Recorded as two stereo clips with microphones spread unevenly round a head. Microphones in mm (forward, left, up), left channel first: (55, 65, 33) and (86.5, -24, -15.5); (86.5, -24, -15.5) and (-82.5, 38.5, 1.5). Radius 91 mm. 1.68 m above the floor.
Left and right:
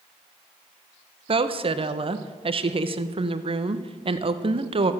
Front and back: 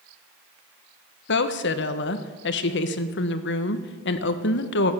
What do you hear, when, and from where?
1.3 s a woman speaking: 30° right, 1.1 m